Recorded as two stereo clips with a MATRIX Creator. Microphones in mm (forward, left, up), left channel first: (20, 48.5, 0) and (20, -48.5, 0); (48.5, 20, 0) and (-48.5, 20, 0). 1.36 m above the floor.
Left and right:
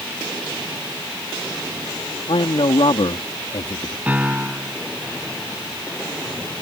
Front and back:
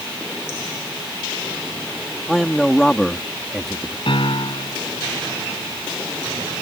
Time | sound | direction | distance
2.3 | a man speaking | 85° left | ?
4.1 | a piano | 20° right | ?